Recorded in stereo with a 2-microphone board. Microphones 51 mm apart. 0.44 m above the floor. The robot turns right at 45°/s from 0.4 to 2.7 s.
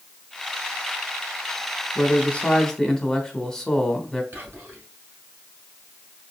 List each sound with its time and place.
1.9 s a man speaking: 130° left, 1.2 m; by 4.2 s 165° left, 1.2 m
4.3 s whispering: 40° right (ahead or behind), 2 m